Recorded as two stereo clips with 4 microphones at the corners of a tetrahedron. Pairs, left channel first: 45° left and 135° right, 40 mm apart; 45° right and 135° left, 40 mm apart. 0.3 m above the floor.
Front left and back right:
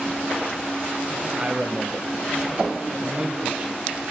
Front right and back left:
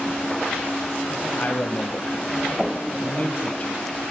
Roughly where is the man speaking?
Right.